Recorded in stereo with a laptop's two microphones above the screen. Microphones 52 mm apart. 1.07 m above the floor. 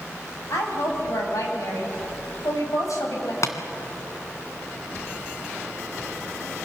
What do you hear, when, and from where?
0.5 s a woman speaking: 90° left, 6.5 m; by 3.3 s 80° left, 6 m
3.4 s tapping: 70° left (ahead or behind), 2 m